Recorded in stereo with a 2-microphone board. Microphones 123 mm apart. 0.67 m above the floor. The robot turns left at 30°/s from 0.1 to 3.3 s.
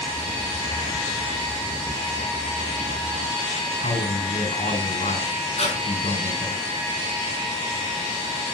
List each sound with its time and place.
3.8 s a man speaking: 80° left, 8 m
5.6 s breathing: 55° left (ahead or behind), 6 m